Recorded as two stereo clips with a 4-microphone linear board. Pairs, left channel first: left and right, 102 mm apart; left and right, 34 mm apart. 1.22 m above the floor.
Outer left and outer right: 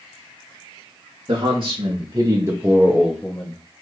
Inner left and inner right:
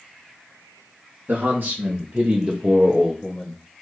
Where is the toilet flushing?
I don't hear a toilet flushing.